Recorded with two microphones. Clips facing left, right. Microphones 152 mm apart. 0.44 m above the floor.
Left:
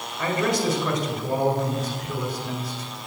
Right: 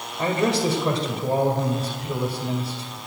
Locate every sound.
0.2 s a man speaking: 30° right (ahead or behind), 2.0 m